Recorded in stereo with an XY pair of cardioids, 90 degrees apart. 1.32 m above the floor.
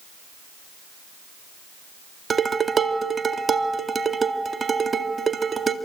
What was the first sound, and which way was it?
Dishes clattering, 40° right.